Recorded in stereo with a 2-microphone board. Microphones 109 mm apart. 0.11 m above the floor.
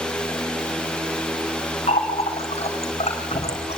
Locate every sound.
1.9 s a running tap: 75° left (ahead or behind), 5 m